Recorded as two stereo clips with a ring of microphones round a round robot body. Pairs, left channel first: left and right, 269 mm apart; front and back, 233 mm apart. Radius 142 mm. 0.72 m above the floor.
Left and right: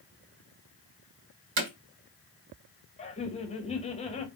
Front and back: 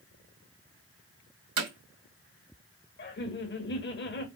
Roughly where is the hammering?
Behind right.